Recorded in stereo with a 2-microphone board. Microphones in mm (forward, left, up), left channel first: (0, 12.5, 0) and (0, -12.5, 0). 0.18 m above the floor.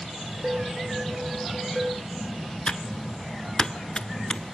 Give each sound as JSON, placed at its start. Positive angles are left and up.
{"t": 0.4, "sound": "dishes clattering", "side_deg": -25, "distance_m": 9.5}
{"t": 2.7, "sound": "typing on a keyboard", "side_deg": 35, "distance_m": 0.7}